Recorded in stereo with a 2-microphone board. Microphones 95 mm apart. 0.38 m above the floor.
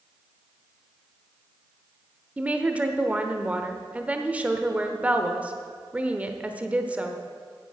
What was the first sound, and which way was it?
A woman speaking, 15° right (ahead or behind).